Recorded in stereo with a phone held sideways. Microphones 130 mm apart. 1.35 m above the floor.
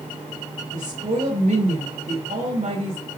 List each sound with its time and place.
0.7 s a woman speaking: 85° right, 5.5 m